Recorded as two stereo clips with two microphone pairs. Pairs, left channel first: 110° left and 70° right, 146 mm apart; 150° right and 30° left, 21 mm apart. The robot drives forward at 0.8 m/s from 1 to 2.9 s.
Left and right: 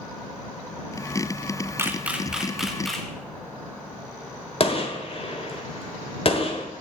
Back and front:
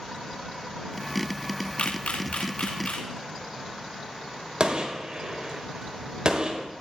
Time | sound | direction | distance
1.8 | a camera shutter | 145° right | 0.8 m
4.6 | a gunshot | 65° left | 1.4 m